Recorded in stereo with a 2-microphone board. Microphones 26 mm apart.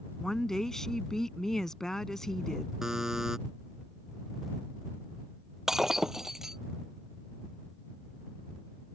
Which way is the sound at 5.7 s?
15° right (ahead or behind).